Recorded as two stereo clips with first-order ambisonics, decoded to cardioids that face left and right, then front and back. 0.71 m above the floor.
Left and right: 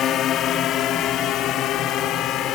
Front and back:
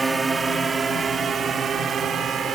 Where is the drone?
110° left; by 2.6 s 125° left.